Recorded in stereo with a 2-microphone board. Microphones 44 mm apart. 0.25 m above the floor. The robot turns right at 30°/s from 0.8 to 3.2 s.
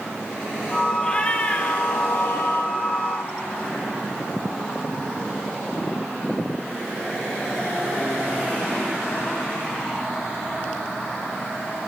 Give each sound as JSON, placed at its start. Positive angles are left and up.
{"t": 1.0, "sound": "a cat meowing", "azimuth_deg": 15, "distance_m": 1.8}